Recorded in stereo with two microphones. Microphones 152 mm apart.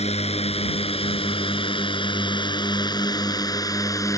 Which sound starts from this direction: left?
A drone, at 0.0 s.